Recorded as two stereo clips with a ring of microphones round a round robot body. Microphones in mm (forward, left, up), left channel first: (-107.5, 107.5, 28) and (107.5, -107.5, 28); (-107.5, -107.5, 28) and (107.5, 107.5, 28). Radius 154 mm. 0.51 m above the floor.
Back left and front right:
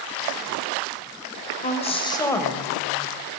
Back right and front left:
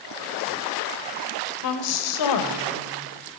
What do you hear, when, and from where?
1.6 s a woman speaking: 160° right, 2.0 m; by 3.4 s 125° right, 2.5 m